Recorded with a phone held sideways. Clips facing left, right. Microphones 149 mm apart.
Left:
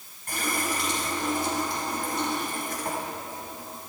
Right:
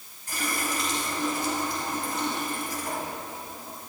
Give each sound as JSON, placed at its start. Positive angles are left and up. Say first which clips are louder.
{"t": 0.3, "sound": "a running tap", "louder": "left 1 dB", "side_deg": 65, "distance_m": 5.5}